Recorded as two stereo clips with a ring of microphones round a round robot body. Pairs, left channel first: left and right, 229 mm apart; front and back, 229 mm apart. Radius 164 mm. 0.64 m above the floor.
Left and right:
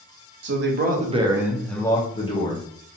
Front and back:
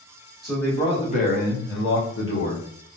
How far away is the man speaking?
About 0.8 m.